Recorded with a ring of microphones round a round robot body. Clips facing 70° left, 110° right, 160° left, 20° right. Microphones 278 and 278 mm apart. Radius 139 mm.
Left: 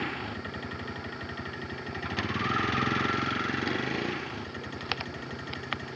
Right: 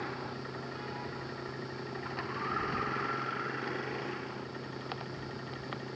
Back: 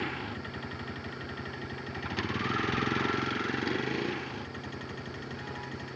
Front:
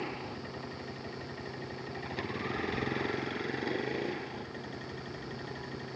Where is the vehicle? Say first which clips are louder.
Left 4 dB, back 2 dB; 100° left; by 6.0 s 90° left.